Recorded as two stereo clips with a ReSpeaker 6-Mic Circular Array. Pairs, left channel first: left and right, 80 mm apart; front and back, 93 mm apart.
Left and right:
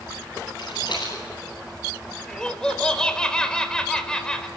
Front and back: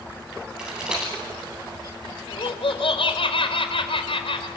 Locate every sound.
0.6 s a rattle: 100° left, 10 m
2.3 s laughter: 10° left, 4.5 m